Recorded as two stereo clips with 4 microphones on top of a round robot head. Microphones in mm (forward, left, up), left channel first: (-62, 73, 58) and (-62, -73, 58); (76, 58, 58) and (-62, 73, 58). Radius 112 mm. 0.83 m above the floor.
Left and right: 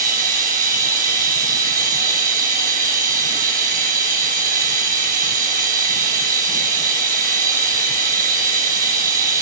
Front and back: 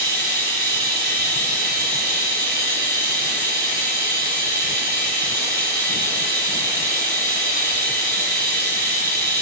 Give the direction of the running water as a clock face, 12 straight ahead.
4 o'clock.